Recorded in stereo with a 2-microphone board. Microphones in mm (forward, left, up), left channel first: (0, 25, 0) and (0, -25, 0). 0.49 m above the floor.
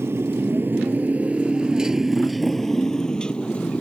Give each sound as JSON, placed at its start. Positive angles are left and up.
{"t": 0.0, "sound": "a motorcycle", "side_deg": -60}